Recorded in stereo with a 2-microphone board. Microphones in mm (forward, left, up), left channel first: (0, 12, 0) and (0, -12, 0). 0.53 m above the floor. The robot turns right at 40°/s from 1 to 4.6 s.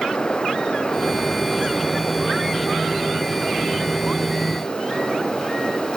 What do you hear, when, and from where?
Only background noise.